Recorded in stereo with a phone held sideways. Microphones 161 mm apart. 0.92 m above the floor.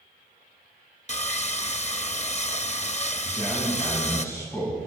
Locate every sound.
1.1 s sawing: 45° left (ahead or behind), 0.9 m
3.2 s a man speaking: 15° left (ahead or behind), 6.5 m